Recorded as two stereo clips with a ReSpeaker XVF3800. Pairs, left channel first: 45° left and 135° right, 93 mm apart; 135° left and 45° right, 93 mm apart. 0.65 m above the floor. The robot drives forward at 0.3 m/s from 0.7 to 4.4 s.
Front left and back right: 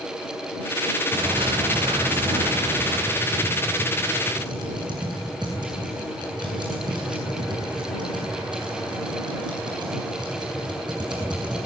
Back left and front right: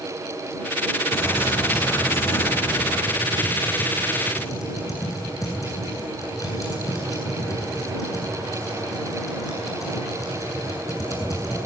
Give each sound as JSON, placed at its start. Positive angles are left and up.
{"t": 1.1, "sound": "a bird", "azimuth_deg": -160, "distance_m": 6.0}
{"t": 3.1, "sound": "typing on a keyboard", "azimuth_deg": -170, "distance_m": 8.0}